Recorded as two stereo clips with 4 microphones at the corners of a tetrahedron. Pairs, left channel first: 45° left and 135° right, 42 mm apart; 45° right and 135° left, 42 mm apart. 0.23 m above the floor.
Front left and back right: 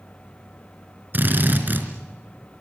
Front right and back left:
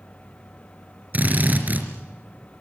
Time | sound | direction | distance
1.1 | a drill | 175° right | 3.5 m